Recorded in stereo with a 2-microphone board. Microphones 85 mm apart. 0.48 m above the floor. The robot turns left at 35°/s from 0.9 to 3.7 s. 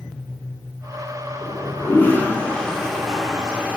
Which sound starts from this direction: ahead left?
A toilet flushing, at 1.4 s.